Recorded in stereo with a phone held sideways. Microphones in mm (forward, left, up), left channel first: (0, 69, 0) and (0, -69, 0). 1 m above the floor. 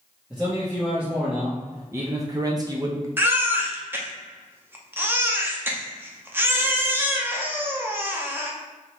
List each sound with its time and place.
0.3 s a man speaking: 5° right (ahead or behind), 1.5 m; by 3.1 s 25° right (ahead or behind), 0.6 m
3.2 s a baby crying: 15° right (ahead or behind), 0.6 m